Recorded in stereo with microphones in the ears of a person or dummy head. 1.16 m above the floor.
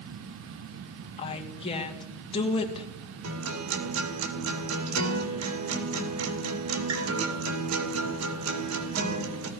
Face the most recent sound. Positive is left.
turn(degrees=-80)